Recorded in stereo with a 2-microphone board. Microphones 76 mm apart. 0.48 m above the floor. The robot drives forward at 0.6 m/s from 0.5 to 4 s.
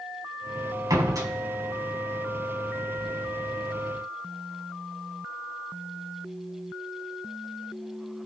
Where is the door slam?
55° right (ahead or behind), 2.5 m; by 1.3 s 50° right (ahead or behind), 2.5 m.